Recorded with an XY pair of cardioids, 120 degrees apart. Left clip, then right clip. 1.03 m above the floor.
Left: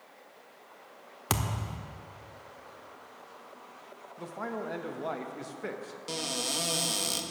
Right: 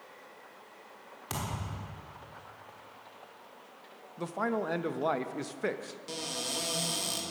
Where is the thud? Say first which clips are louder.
Left 5 dB; 60° left, 1.2 m.